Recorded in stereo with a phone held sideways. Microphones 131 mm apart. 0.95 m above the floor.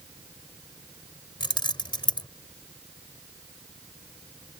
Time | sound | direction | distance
1.4 | keys jangling | 40° left (ahead or behind) | ?